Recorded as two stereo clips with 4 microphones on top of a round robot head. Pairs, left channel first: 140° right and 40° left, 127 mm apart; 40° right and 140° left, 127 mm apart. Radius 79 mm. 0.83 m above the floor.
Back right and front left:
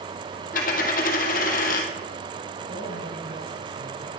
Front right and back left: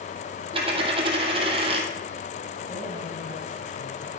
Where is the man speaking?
30° left, 8.5 m.